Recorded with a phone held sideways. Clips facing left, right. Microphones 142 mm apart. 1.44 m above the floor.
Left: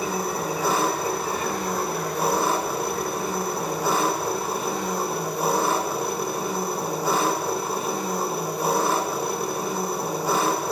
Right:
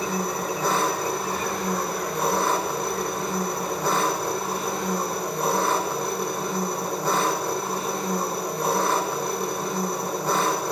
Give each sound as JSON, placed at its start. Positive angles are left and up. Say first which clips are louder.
{"t": 0.0, "sound": "an engine running", "louder": "left 1 dB", "side_deg": 5, "distance_m": 1.6}